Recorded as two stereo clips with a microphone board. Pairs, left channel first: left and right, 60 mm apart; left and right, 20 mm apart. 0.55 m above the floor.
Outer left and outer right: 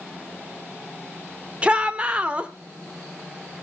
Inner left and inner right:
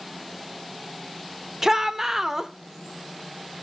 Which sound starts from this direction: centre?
A shout, at 1.6 s.